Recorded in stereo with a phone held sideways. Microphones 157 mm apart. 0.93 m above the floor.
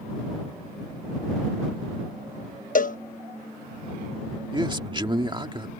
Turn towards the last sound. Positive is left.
turn(degrees=-30)  # may be behind; listen again after turning